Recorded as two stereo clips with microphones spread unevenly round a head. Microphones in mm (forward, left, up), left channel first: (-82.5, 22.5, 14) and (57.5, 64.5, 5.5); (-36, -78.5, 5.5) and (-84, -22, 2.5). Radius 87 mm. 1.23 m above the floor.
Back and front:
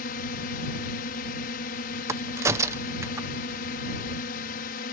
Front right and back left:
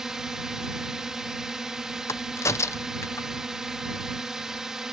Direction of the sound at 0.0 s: 150° right.